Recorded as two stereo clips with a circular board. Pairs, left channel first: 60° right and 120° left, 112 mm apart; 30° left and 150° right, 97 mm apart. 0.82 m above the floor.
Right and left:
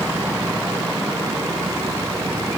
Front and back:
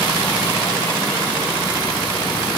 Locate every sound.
Only background noise.